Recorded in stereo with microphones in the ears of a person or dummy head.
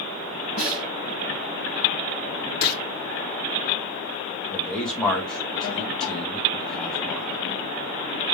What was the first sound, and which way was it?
A snare drum, 60° right (ahead or behind).